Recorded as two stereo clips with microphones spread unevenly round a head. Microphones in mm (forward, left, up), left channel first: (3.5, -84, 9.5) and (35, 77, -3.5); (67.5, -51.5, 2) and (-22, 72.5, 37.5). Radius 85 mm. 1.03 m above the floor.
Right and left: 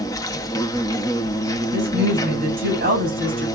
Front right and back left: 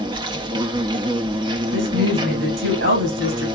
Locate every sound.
0.0 s an insect: 170° right, 0.7 m
1.7 s a woman speaking: 125° left, 6.5 m